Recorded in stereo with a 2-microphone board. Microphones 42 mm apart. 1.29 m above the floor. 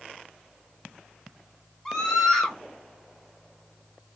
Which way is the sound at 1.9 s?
15° left (ahead or behind).